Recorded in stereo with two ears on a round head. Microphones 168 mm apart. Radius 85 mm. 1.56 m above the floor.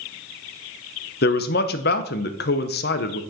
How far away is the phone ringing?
No phone ringing in this recording.